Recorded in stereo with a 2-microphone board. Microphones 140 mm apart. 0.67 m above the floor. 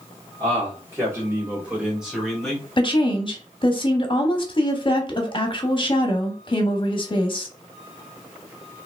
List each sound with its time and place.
0.4 s a man speaking: 35° right (ahead or behind), 2 m; by 2.6 s 5° left (ahead or behind), 2.5 m
2.8 s a woman speaking: 40° left (ahead or behind), 1.0 m